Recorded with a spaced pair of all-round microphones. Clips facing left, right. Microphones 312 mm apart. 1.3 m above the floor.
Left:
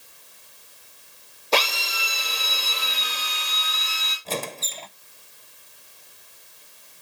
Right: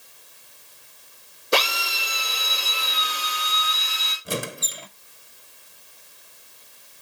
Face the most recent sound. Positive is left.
turn(degrees=-15)  # may be behind; listen again after turning